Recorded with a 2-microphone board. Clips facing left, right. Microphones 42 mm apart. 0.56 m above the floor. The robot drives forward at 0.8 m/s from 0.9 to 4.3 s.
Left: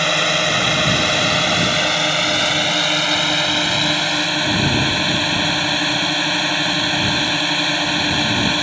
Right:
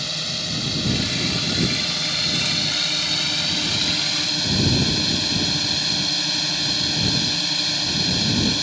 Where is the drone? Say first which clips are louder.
Left 12 dB; 60° left (ahead or behind); by 8.6 s 45° left (ahead or behind).